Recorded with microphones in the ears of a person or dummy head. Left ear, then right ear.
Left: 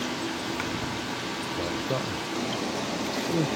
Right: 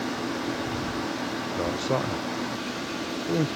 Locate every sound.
1.6 s a man speaking: 30° right (ahead or behind)